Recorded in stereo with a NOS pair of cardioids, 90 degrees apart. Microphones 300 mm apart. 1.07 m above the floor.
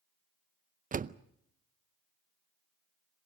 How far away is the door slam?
About 0.6 m.